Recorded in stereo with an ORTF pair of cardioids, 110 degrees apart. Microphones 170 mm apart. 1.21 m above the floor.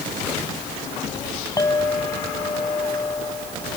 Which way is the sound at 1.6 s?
20° left.